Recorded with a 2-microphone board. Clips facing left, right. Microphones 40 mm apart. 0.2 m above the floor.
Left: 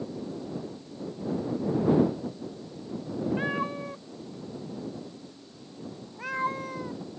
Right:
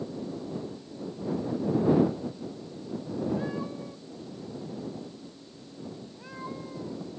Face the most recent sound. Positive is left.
turn(degrees=65)  # may be behind; listen again after turning